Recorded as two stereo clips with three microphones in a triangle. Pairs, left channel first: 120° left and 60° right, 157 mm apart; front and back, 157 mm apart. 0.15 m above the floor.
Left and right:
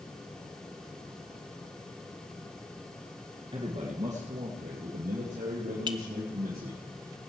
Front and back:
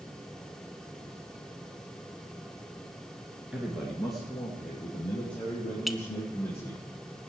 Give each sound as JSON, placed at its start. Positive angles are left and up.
{"t": 3.5, "sound": "a man speaking", "azimuth_deg": -100, "distance_m": 1.8}
{"t": 5.9, "sound": "a clink", "azimuth_deg": -90, "distance_m": 0.9}